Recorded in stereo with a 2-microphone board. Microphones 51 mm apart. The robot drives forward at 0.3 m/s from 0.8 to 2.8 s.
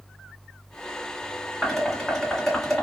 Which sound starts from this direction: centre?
Dishes clattering, at 1.6 s.